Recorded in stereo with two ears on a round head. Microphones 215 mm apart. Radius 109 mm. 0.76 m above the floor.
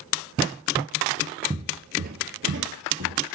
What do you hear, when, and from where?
1.5 s footsteps: 20° right (ahead or behind), 0.7 m; by 3.2 s 65° right (ahead or behind), 1.5 m